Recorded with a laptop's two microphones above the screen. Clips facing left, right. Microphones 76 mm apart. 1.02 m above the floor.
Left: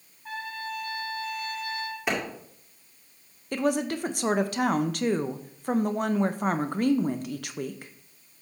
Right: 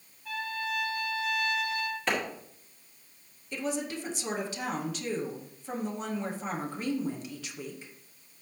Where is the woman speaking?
60° left (ahead or behind), 0.6 m.